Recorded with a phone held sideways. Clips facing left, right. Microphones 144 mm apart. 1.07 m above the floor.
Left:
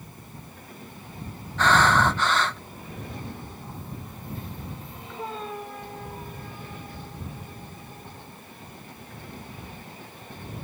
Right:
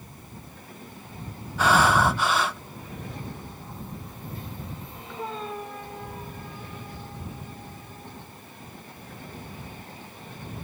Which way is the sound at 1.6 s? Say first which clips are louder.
Even; 10° right (ahead or behind).